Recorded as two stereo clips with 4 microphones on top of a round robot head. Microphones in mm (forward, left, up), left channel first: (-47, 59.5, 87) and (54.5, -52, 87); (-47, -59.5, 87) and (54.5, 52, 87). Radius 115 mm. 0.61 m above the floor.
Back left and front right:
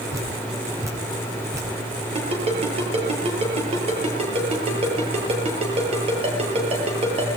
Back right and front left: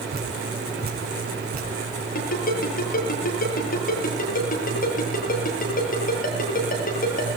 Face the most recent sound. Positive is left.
turn(degrees=-100)